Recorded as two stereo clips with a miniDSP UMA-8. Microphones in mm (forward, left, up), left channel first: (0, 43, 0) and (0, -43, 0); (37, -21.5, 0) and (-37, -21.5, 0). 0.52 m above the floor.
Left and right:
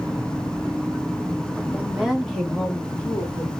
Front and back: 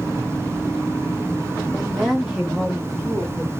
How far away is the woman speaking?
About 1.3 m.